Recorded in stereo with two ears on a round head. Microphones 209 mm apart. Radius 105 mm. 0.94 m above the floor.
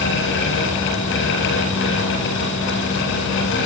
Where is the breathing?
No breathing in this recording.